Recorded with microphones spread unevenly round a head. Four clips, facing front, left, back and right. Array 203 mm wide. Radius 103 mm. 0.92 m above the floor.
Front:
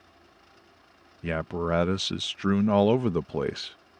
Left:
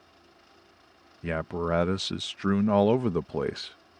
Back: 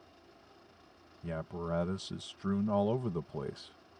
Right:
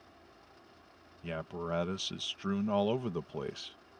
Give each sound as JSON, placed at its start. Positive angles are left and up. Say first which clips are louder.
{"t": 1.2, "sound": "a man speaking", "louder": "left 8 dB, front 9 dB", "azimuth_deg": 45}